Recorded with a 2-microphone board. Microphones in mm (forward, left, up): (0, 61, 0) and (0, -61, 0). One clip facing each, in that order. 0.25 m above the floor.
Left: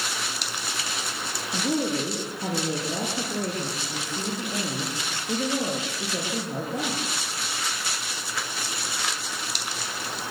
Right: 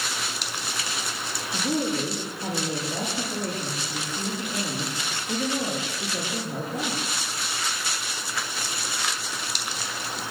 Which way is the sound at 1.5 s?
80° left.